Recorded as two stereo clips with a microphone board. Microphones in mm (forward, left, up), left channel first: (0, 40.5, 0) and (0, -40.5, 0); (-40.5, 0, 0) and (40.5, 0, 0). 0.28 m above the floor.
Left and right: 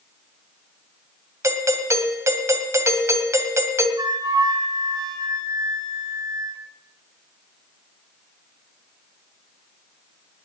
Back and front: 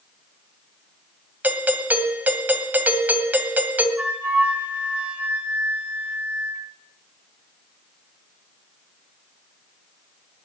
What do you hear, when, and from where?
1.4 s a doorbell: 60° right, 1.8 m
4.0 s a flute: 70° right, 3 m